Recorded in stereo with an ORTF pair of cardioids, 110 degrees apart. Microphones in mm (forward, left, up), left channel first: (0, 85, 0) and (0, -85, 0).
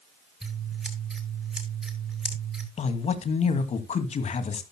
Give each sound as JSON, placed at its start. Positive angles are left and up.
{"t": 0.4, "sound": "scissors", "azimuth_deg": -5, "distance_m": 8.0}
{"t": 2.8, "sound": "a man speaking", "azimuth_deg": 40, "distance_m": 2.5}